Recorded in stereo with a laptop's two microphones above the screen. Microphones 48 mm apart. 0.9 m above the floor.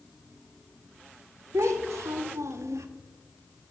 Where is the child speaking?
75° right (ahead or behind), 0.6 m.